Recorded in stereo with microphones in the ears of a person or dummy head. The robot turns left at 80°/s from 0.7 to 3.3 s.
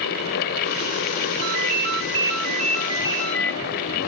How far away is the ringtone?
About 1.3 m.